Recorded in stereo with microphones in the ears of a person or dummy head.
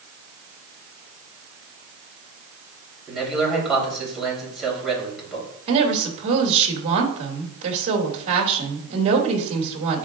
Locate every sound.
3.1 s a man speaking: centre (ahead or behind), 3.5 m
5.7 s a woman speaking: 35° right (ahead or behind), 2.5 m